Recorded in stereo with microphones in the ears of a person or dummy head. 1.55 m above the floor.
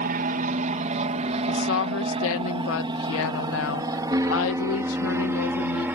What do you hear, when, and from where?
0.0 s an aircraft: 50° right (ahead or behind); by 6.0 s 15° right (ahead or behind)
1.5 s a woman speaking: 80° left